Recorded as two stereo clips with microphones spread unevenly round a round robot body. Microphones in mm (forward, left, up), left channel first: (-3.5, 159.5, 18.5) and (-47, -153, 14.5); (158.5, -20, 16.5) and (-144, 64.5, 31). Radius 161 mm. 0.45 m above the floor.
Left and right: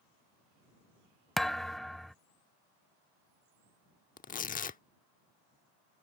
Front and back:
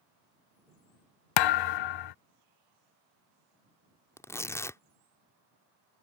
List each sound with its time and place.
1.4 s a thud: 5° right
4.2 s tearing paper: 50° left